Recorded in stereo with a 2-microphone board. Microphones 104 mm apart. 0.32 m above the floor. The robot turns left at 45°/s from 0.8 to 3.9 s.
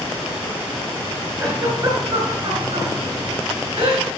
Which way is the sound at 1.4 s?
30° right (ahead or behind).